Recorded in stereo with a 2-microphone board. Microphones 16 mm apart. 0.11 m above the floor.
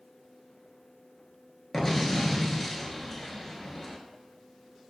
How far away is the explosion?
About 0.6 m.